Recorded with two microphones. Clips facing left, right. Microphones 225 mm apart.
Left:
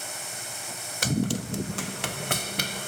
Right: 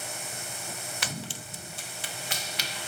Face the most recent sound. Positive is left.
turn(degrees=45)  # may be behind; listen again after turning